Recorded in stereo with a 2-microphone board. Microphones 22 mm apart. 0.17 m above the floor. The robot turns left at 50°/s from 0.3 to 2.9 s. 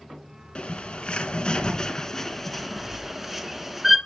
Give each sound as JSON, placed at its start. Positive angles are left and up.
{"t": 0.6, "sound": "a bird", "azimuth_deg": 95, "distance_m": 2.5}